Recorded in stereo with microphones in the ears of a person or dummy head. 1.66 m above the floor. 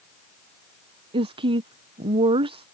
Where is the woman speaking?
30° right (ahead or behind).